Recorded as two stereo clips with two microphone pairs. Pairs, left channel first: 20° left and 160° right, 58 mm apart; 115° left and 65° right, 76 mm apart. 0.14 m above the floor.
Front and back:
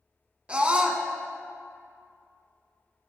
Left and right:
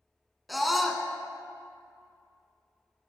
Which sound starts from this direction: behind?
A scream, at 0.5 s.